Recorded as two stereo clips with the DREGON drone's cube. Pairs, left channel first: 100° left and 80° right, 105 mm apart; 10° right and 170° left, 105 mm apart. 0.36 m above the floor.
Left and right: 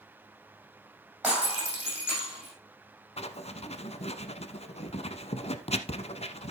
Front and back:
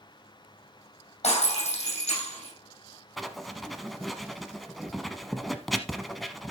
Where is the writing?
80° left, 0.8 m.